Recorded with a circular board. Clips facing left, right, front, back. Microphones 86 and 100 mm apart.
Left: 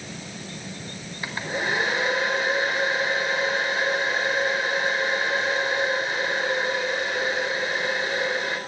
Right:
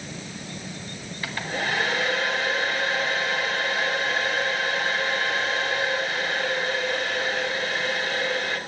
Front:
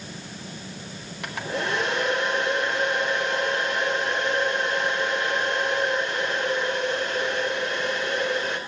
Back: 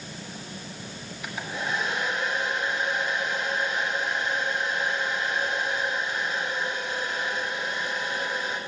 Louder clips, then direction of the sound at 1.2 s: Left 1 dB, front 4 dB; 20° left.